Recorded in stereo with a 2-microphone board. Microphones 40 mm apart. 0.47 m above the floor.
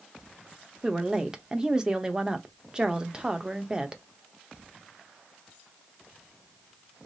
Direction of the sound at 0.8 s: 20° right (ahead or behind).